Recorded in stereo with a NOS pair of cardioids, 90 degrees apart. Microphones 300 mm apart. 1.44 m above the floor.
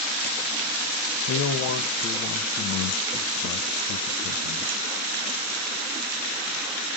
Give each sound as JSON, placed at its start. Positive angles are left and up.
{"t": 1.3, "sound": "a man speaking", "azimuth_deg": 55, "distance_m": 1.0}